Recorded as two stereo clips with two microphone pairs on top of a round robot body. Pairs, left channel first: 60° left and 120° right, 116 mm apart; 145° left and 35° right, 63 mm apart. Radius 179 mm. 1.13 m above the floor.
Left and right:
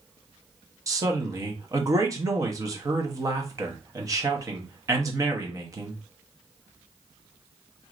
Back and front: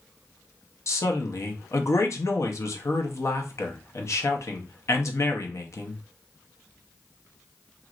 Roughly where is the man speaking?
Behind.